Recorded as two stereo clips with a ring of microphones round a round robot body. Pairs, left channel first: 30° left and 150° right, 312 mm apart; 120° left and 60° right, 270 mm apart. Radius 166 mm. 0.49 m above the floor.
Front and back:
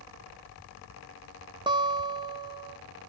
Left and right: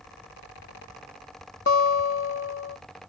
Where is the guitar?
140° left, 0.8 m.